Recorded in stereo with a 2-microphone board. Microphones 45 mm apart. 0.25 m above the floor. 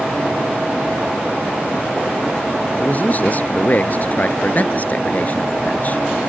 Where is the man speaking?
40° left (ahead or behind).